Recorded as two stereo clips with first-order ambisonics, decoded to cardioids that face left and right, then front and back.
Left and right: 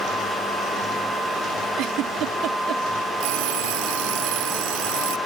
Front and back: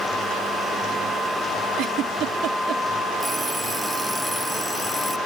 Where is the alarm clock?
90° right.